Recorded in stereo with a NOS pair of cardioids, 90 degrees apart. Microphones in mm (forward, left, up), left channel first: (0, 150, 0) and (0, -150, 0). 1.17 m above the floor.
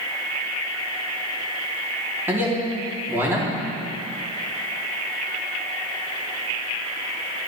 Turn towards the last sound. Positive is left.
turn(degrees=-10)